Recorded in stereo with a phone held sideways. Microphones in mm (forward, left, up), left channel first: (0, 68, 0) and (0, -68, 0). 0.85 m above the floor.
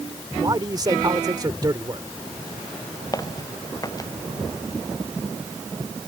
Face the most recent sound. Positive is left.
turn(degrees=25)  # may be behind; listen again after turning